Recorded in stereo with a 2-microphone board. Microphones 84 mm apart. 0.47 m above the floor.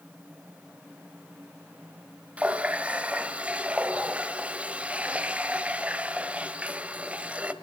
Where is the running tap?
15° right (ahead or behind), 1.3 m.